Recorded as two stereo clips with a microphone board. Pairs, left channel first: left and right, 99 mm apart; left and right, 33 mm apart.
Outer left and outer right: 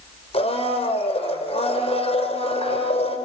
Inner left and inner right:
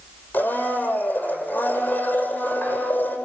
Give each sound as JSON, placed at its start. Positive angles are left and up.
{"t": 0.3, "sound": "a blender", "side_deg": 80, "distance_m": 5.5}